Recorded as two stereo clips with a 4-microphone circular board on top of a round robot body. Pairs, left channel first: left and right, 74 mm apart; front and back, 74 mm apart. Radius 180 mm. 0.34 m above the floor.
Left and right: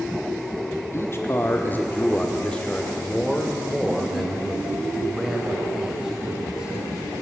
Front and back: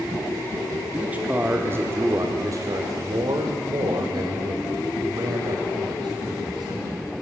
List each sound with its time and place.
0.9 s a man speaking: 115° left, 1.5 m; by 7.1 s 165° right, 4 m